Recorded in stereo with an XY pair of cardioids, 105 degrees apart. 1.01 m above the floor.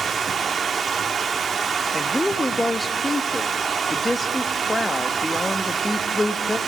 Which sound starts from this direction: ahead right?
Running water, at 0.0 s.